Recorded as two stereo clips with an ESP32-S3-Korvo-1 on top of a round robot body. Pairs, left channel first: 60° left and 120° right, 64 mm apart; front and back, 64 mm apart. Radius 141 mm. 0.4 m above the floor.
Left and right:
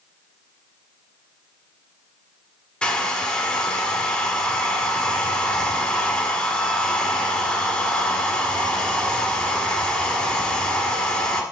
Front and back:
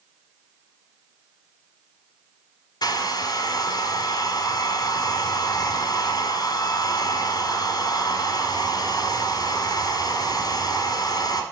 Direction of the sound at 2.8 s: 15° right.